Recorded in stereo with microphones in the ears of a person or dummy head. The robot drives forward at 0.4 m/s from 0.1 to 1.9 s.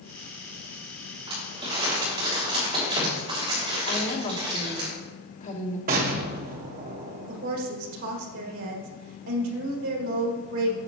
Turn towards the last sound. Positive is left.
turn(degrees=-70)  # may be behind; listen again after turning